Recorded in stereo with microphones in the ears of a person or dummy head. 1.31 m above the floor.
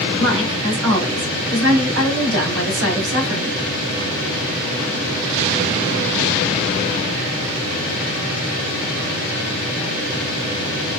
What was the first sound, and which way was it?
A woman speaking, 85° right.